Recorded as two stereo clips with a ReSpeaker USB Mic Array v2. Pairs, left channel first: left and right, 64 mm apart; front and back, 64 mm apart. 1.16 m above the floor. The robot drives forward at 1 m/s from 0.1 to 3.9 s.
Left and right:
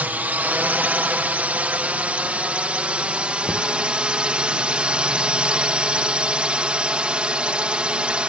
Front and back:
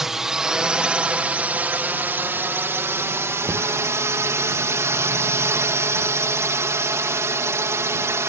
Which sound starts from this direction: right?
A drone, at 0.0 s.